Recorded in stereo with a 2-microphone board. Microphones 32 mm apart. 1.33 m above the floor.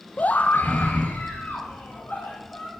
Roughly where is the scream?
Left.